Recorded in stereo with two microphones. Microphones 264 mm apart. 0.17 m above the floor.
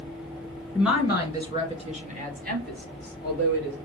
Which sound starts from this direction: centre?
A woman speaking, at 0.8 s.